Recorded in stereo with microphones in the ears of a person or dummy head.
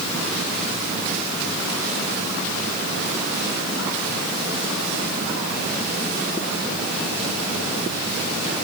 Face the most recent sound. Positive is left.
No sound to turn to.